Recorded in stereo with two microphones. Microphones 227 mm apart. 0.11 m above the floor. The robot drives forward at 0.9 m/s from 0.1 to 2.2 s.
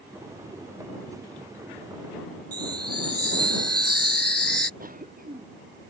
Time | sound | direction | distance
2.5 | a chime | 45° right (ahead or behind) | ?
4.8 | a cough | 40° right (ahead or behind) | ?